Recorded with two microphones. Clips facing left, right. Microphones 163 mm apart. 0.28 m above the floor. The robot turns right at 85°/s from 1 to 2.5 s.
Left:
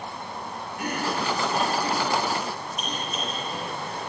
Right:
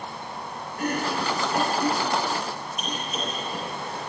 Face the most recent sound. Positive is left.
turn(degrees=0)  # may be behind; listen again after turning